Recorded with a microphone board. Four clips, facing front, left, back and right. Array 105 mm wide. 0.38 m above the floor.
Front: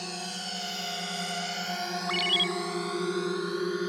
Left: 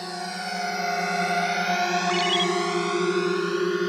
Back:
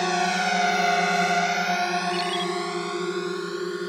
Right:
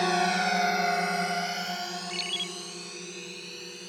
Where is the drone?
150° right; by 3.9 s 95° left.